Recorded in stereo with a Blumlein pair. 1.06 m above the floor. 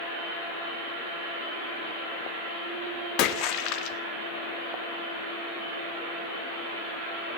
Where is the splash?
45° left, 1.5 m.